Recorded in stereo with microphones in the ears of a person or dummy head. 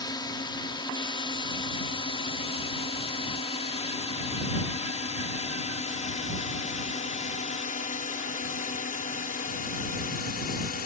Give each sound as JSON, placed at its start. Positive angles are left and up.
{"t": 0.0, "sound": "a drone", "side_deg": 20}